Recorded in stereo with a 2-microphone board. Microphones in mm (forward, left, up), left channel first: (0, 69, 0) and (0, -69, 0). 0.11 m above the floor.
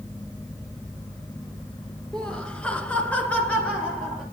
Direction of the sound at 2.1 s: 5° left (ahead or behind).